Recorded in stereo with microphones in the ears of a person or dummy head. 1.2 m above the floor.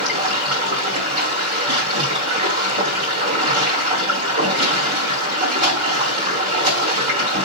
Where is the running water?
40° right (ahead or behind), 3.5 m.